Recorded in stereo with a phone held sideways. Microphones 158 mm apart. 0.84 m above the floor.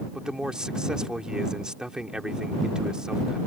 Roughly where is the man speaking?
Centre.